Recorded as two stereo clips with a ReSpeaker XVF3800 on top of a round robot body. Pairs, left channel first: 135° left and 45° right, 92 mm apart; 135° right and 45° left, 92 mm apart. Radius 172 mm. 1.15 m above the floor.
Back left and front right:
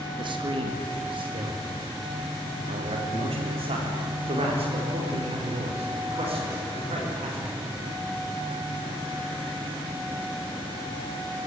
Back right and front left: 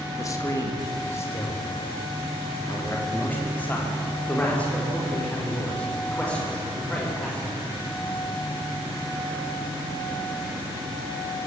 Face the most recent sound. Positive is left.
turn(degrees=-55)